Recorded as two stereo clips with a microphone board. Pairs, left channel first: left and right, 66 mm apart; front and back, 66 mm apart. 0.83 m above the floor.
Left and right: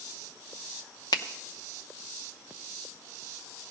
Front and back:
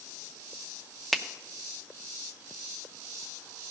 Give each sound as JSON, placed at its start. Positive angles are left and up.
{"t": 1.1, "sound": "a finger snap", "azimuth_deg": 85, "distance_m": 0.7}